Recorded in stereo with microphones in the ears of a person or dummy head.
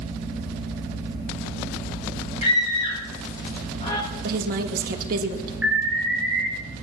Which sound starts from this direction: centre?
An alarm, at 5.6 s.